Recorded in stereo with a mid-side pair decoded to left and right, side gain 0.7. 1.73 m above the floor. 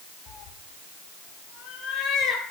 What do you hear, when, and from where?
0.3 s a cat meowing: 55° left, 5.5 m; by 2.4 s 45° left, 4.5 m